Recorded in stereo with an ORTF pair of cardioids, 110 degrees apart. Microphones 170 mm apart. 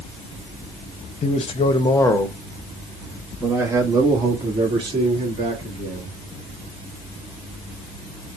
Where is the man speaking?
40° left, 1.1 m; by 6.2 s 35° right, 2.5 m.